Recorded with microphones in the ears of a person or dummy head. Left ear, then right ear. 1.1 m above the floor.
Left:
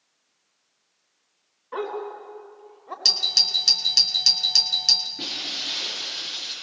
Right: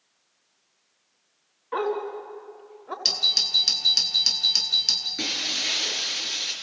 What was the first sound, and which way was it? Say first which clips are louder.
A dog barking: right 3 dB; 20° right (ahead or behind).